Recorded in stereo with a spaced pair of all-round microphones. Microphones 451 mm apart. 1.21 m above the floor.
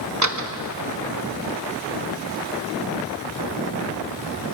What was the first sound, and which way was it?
A door slam, 40° right (ahead or behind).